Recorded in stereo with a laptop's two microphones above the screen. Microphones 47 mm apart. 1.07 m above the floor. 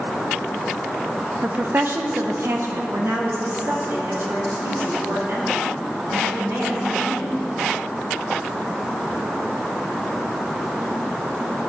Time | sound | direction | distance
1.4 | a woman speaking | 25° right (ahead or behind) | 0.7 m